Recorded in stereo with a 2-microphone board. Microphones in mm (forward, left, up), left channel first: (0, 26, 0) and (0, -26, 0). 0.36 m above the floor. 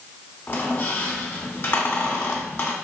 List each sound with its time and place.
0.5 s a squeak: 40° left (ahead or behind), 0.9 m